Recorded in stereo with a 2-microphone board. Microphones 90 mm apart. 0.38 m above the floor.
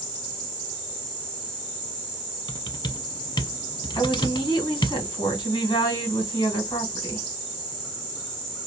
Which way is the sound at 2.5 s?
65° left (ahead or behind).